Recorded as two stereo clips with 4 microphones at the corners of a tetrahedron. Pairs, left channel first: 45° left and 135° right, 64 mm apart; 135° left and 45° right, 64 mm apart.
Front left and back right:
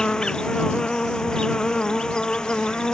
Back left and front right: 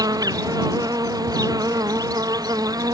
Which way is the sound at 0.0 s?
35° right.